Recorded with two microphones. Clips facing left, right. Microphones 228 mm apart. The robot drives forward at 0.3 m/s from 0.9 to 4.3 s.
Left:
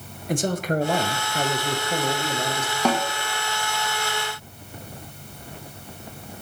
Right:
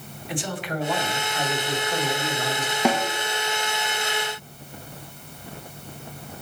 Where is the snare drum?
10° right (ahead or behind), 0.8 m.